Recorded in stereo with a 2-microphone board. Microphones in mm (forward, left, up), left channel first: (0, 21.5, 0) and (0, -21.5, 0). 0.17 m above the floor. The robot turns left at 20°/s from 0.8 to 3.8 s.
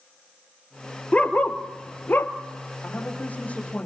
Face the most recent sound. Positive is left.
turn(degrees=25)  # may be behind; listen again after turning